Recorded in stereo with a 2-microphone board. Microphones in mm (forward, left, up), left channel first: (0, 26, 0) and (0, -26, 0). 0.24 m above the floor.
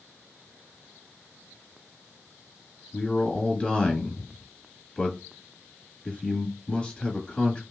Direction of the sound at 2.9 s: 20° left (ahead or behind).